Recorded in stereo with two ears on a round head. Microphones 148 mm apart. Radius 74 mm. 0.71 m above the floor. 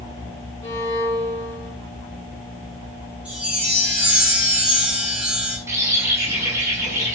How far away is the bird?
About 5 m.